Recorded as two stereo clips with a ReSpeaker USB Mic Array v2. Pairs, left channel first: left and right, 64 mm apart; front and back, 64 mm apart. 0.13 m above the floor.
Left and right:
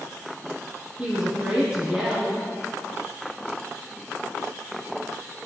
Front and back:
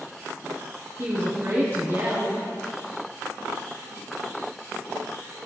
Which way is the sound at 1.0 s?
160° right.